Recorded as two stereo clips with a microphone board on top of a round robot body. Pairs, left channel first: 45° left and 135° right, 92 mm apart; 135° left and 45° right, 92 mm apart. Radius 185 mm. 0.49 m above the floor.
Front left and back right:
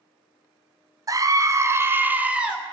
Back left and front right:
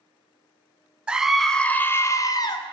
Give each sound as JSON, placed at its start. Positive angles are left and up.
{"t": 1.1, "sound": "a scream", "azimuth_deg": -120, "distance_m": 1.4}